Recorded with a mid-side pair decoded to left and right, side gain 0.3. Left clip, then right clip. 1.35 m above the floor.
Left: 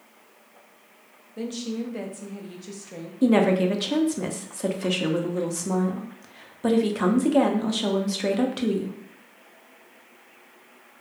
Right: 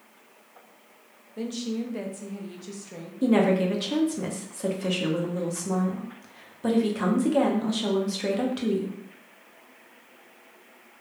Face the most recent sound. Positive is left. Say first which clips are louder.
# left 2 dB
turn(degrees=30)